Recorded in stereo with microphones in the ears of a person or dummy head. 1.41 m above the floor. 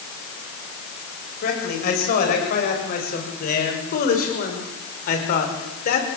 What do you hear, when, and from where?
1.4 s a man speaking: 50° left (ahead or behind), 7 m